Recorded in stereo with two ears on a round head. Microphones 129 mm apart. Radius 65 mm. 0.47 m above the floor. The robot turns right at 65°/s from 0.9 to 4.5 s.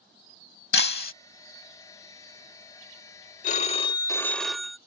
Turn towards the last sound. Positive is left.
turn(degrees=180)